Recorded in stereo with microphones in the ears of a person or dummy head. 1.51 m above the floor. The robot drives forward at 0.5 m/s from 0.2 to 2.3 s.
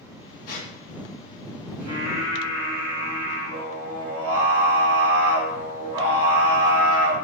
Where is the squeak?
60° left (ahead or behind), 1.1 m.